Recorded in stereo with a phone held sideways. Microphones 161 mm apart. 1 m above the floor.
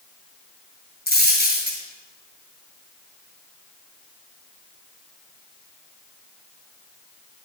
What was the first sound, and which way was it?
A dropped coin, 80° left.